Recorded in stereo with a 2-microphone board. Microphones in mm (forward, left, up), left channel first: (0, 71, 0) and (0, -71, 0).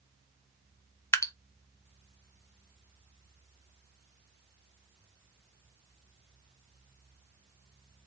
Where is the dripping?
20° left (ahead or behind), 0.7 m.